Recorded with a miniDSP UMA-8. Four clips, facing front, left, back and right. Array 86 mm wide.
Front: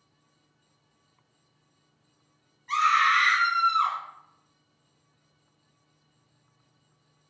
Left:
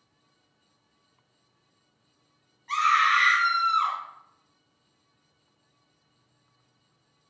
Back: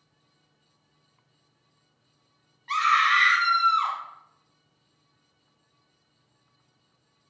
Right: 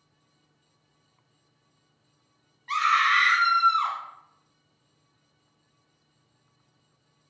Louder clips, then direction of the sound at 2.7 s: Left 1 dB, even; 140° right.